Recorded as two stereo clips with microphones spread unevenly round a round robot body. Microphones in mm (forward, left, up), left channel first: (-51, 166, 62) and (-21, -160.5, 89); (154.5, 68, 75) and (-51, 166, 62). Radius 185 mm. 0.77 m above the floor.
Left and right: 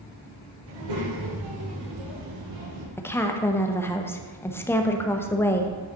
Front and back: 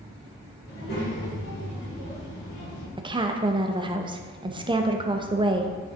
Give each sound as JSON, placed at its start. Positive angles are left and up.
{"t": 0.7, "sound": "a child speaking", "azimuth_deg": -80, "distance_m": 3.0}
{"t": 3.0, "sound": "a woman speaking", "azimuth_deg": 155, "distance_m": 0.8}